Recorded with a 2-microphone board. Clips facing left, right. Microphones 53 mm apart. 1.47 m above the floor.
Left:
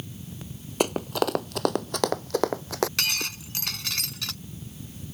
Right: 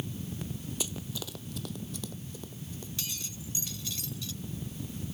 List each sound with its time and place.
0.8 s running footsteps: 55° left (ahead or behind); by 2.9 s 70° left (ahead or behind)
3.0 s breaking glass: 65° left (ahead or behind)